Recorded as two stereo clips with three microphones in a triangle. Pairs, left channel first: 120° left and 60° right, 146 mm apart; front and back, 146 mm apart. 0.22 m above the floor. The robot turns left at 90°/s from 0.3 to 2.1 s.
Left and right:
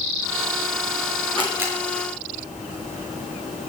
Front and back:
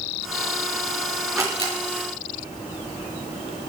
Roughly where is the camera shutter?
Right.